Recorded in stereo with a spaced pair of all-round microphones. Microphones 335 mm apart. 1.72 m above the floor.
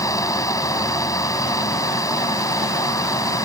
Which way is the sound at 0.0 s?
10° left (ahead or behind).